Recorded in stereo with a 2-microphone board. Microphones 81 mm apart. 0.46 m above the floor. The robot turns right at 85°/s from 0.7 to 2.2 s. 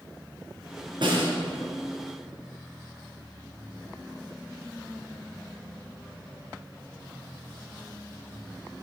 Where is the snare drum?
65° right (ahead or behind), 4.5 m; by 1.3 s 80° right, 4.5 m.